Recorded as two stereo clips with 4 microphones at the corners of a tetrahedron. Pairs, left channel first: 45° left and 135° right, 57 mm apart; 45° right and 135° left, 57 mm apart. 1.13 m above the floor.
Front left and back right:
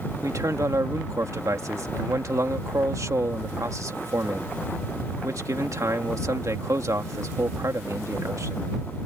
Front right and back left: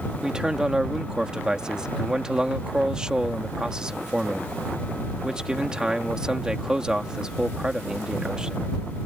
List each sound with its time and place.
0.2 s a man speaking: 150° right